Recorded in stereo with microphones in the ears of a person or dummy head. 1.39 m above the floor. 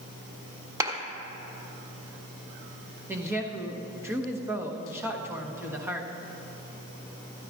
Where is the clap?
20° right (ahead or behind), 1.4 m.